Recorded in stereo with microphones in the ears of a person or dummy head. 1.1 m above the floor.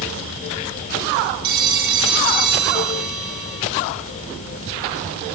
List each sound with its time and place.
1.4 s a phone ringing: 55° right (ahead or behind), 5.5 m